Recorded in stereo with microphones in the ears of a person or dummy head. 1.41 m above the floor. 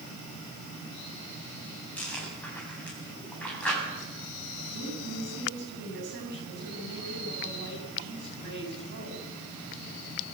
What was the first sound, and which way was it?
Chewing, 5° left (ahead or behind).